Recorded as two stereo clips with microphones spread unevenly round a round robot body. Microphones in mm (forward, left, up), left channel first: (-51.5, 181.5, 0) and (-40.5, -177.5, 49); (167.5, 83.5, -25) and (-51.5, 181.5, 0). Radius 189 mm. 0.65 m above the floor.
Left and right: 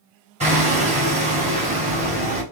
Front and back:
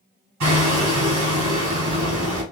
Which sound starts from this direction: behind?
Hammering, at 0.4 s.